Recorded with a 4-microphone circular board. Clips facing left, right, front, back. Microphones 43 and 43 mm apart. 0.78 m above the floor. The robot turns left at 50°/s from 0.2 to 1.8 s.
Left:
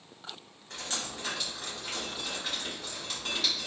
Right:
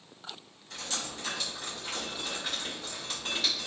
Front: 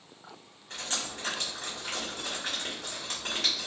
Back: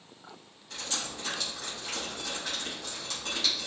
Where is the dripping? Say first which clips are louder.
Even, front 1 dB; 50° left, 1.8 m; by 3.7 s 5° right, 1.8 m.